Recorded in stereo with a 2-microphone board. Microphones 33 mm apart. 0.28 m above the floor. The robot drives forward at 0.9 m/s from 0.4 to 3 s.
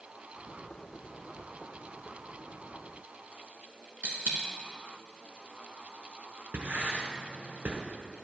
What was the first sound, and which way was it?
A dropped coin, 65° right (ahead or behind).